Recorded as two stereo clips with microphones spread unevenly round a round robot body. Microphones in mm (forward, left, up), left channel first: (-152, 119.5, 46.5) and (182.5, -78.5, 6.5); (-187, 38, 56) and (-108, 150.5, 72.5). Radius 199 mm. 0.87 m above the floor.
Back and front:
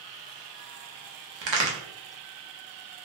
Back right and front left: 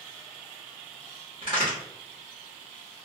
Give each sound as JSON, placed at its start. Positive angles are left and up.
{"t": 1.4, "sound": "a crack", "azimuth_deg": -10, "distance_m": 1.0}